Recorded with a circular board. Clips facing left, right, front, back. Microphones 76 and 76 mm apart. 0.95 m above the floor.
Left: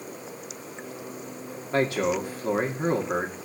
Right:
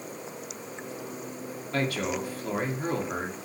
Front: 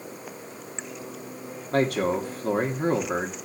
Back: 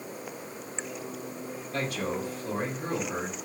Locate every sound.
1.7 s a man speaking: 25° left, 2.5 m